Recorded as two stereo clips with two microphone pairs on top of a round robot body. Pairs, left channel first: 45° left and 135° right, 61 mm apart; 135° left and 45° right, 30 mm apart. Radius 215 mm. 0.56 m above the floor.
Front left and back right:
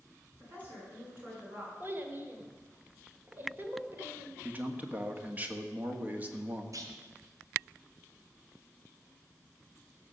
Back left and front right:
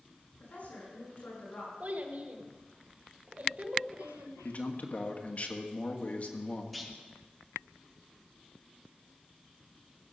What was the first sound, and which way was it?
A woman speaking, 170° left.